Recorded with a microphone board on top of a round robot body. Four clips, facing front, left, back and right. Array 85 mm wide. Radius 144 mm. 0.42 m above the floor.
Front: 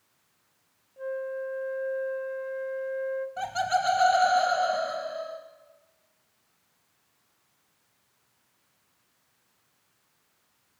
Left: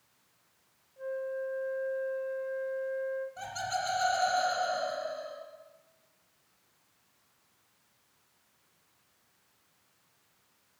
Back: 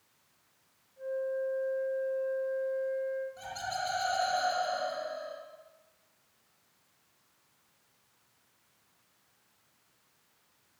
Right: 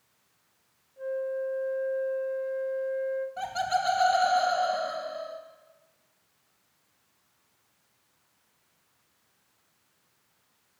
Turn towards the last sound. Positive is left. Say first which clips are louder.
# right 7 dB, front 10 dB
turn(degrees=-25)